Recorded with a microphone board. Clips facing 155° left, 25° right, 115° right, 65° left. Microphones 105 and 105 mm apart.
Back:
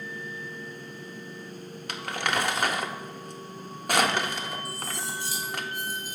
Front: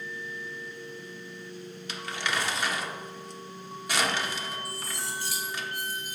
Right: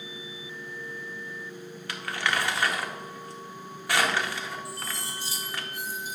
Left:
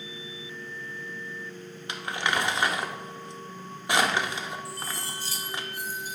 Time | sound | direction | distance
1.9 | crumpling | 135° left | 0.6 m
4.7 | cutlery clinking | 40° right | 1.7 m